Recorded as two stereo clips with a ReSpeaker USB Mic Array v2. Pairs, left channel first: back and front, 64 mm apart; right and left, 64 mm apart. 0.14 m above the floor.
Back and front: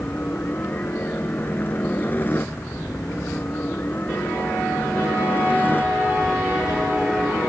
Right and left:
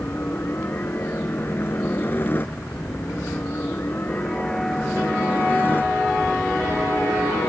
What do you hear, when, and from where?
0.0 s a helicopter: 135° right